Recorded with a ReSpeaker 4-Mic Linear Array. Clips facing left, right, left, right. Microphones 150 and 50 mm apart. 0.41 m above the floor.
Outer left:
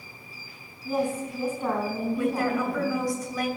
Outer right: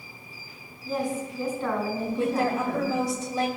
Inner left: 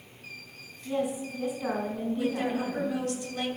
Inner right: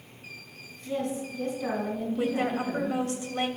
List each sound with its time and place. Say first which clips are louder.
0.8 s a woman speaking: outer left 2 dB, inner left 1 dB; 10° left (ahead or behind), 3.5 m
2.2 s a woman speaking: outer right 1 dB, inner right 2 dB; 30° right (ahead or behind), 2.5 m